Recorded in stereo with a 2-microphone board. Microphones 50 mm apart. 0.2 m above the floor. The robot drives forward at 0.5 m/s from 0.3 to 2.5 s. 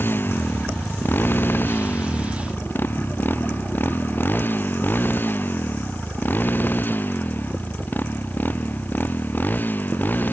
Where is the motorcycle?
45° left (ahead or behind); by 10.3 s 40° left (ahead or behind).